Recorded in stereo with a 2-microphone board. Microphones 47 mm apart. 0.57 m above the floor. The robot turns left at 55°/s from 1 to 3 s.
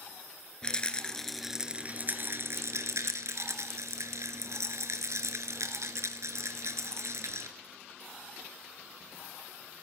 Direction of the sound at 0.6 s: 20° left.